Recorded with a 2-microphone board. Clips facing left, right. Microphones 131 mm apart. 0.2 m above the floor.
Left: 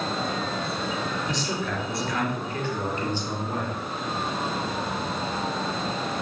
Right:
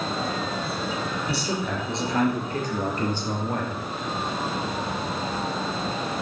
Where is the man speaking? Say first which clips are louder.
Right 1 dB; 5° right (ahead or behind), 3 m; by 3.8 s 60° right (ahead or behind), 4 m.